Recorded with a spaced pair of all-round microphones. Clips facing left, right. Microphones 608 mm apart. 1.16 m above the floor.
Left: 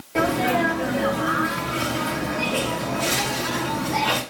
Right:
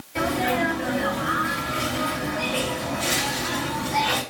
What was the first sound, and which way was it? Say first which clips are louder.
A sneeze: left 3 dB; 70° left (ahead or behind).